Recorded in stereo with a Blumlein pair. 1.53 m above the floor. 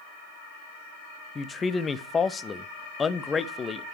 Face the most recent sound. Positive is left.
turn(degrees=20)